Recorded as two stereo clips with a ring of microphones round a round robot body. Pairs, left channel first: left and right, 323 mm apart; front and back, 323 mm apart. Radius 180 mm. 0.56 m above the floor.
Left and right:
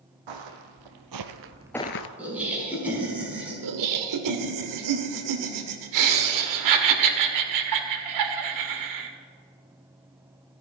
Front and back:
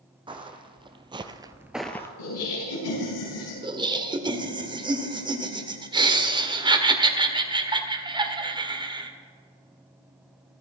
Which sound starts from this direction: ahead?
Laughter, at 2.2 s.